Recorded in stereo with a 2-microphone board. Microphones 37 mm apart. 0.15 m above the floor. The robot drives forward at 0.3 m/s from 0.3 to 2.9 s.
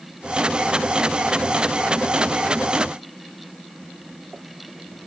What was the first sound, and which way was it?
Only background noise.